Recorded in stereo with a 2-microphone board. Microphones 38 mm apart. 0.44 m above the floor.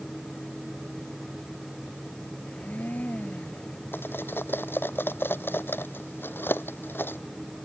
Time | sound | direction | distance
2.5 | a blender | 45° left (ahead or behind) | ?
3.9 | cutlery clinking | 80° left | ?